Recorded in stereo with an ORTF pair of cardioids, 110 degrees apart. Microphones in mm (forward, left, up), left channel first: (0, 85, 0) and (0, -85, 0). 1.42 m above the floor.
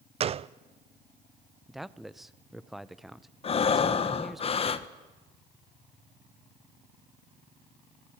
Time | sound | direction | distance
0.2 | a gunshot | 40° right | 0.6 m
1.7 | a man speaking | straight ahead | 0.9 m
3.4 | breathing | 35° left | 1.3 m